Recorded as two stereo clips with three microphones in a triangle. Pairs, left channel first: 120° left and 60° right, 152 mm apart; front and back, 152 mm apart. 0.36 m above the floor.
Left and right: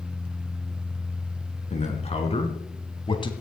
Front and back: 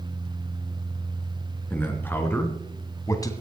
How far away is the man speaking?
About 3.5 m.